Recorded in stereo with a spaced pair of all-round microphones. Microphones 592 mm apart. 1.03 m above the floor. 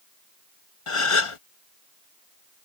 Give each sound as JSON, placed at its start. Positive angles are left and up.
{"t": 0.9, "sound": "a gasp", "side_deg": 55}